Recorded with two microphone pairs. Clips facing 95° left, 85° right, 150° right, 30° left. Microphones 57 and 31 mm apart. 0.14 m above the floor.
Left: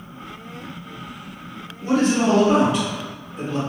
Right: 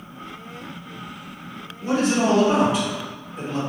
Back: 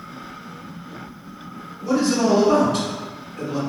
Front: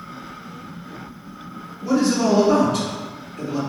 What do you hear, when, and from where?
1.8 s a man speaking: 15° right, 1.5 m; by 3.6 s 60° right, 2 m